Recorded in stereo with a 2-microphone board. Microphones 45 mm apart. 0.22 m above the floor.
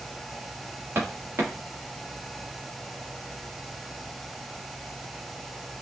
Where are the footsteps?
65° right (ahead or behind), 2.5 m.